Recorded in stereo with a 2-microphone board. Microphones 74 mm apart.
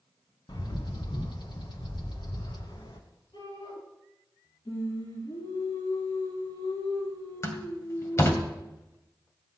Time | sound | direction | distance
0.5 | a bird | 80° left | 1.7 m
3.3 | a shout | 80° left | 9 m
4.7 | singing | 80° left | 6.5 m
7.4 | a door slam | 35° left (ahead or behind) | 2.0 m